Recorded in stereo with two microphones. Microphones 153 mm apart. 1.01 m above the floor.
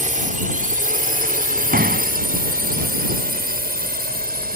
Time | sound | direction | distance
0.0 | a drone | 60° right (ahead or behind) | ?
1.7 | a door slam | 75° right (ahead or behind) | ?